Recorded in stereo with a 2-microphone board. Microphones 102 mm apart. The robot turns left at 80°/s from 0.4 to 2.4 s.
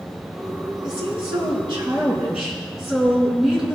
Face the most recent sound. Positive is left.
turn(degrees=-175)